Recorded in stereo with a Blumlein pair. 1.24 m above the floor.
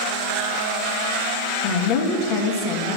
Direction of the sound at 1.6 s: 45° left.